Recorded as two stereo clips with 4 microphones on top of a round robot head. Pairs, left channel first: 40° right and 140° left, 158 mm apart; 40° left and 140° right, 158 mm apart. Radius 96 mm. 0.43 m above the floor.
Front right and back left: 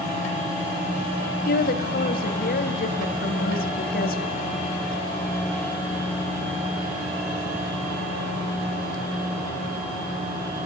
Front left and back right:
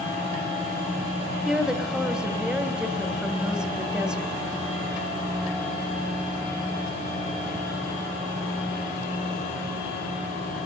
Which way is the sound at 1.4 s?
55° right.